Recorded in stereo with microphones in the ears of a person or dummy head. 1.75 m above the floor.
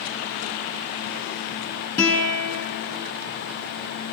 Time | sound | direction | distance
2.0 | a guitar | 15° left (ahead or behind) | 6 m